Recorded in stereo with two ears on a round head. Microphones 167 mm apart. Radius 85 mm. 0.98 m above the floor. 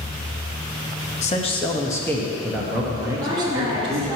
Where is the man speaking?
35° left (ahead or behind), 0.9 m; by 4.1 s 30° right (ahead or behind), 1.5 m.